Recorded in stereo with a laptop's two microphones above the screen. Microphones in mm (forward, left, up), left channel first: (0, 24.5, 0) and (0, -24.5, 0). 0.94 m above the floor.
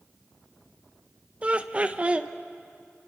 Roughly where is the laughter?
Right.